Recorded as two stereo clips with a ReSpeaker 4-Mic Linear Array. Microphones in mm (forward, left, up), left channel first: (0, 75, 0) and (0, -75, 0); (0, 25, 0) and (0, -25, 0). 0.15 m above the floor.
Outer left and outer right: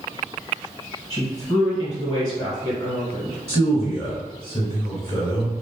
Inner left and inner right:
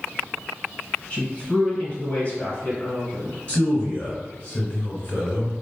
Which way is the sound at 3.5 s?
20° left (ahead or behind).